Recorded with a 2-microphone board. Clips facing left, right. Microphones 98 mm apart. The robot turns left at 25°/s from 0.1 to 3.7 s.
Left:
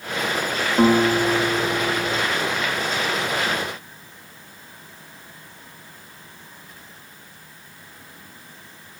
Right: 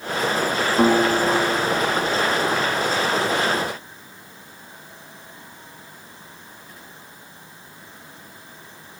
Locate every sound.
0.8 s a guitar: 140° left, 5.5 m; by 2.2 s 105° left, 5.5 m